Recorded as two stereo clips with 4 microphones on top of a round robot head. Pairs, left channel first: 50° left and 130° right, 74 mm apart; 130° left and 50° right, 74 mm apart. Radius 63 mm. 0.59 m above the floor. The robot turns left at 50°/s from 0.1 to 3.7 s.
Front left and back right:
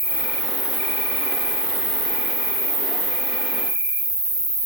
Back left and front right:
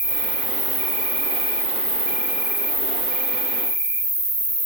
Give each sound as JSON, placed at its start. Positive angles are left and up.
{"t": 0.0, "sound": "an insect", "azimuth_deg": 0, "distance_m": 3.5}